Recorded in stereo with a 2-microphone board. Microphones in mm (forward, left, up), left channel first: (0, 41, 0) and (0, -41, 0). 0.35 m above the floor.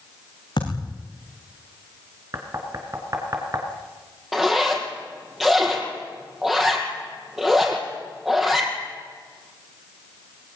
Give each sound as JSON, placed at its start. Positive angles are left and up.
{"t": 0.6, "sound": "a thud", "side_deg": 65, "distance_m": 6.5}
{"t": 2.3, "sound": "knocking", "side_deg": -40, "distance_m": 3.5}
{"t": 4.3, "sound": "a zipper", "side_deg": -5, "distance_m": 4.5}